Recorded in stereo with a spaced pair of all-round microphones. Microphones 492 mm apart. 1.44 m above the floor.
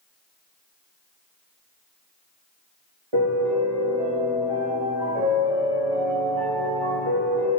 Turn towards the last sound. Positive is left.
turn(degrees=-85)